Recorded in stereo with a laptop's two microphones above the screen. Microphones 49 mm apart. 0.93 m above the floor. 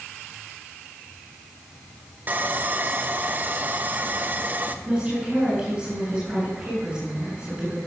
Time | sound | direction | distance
2.3 | sawing | 35° right (ahead or behind) | 1.0 m
4.8 | a woman speaking | 20° right (ahead or behind) | 9 m